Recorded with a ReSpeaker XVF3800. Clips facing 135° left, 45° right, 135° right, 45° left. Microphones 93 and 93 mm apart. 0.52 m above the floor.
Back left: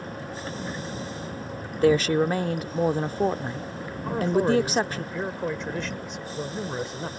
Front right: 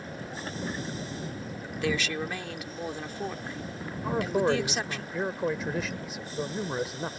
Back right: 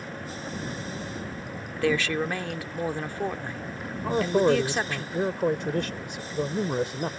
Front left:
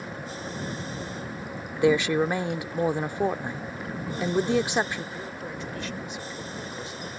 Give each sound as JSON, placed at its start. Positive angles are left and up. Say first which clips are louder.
{"t": 1.8, "sound": "a woman speaking", "louder": "back left 11 dB, front left 4 dB", "azimuth_deg": 110}
{"t": 4.0, "sound": "a man speaking", "louder": "back left 3 dB, back right 5 dB", "azimuth_deg": -130}